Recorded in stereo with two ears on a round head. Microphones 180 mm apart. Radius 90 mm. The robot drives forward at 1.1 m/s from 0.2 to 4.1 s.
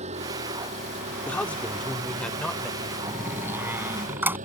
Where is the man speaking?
5° left (ahead or behind).